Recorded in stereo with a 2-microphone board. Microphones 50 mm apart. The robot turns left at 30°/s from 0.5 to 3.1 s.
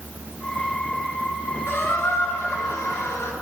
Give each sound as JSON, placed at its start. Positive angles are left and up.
{"t": 1.7, "sound": "a squeak", "azimuth_deg": 120, "distance_m": 1.9}